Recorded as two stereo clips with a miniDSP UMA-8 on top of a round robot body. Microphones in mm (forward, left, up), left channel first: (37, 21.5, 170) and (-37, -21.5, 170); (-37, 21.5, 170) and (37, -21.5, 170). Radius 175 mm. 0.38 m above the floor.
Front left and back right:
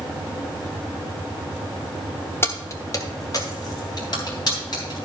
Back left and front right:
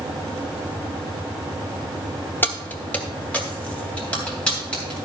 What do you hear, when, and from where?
2.4 s keys jangling: 85° left, 1.2 m; by 5.0 s 70° left, 4 m